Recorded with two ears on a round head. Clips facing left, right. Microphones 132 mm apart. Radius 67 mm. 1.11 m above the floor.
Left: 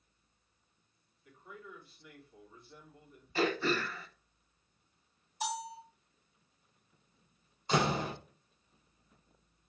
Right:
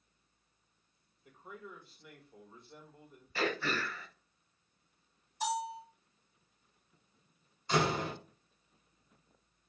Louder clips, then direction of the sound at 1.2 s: Right 2 dB; 20° right (ahead or behind).